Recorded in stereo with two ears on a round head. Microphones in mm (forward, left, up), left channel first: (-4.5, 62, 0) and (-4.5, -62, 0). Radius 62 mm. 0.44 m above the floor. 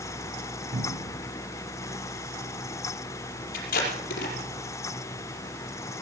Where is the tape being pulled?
75° left (ahead or behind), 5.5 m.